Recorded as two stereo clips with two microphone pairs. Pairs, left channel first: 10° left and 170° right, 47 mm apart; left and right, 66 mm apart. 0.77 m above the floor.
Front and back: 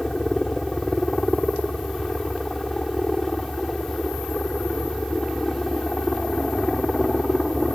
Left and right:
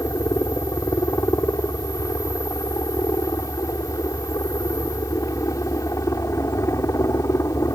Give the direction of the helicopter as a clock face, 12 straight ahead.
9 o'clock.